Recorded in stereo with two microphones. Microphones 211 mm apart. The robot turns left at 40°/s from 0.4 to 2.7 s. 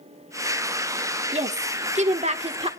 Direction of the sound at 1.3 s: 70° right.